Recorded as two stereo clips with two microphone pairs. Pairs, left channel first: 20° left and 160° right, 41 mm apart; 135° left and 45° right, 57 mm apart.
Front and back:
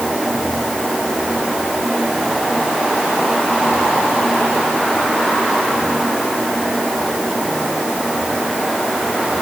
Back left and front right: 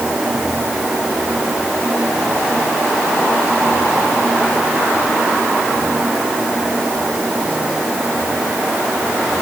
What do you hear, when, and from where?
Only background noise.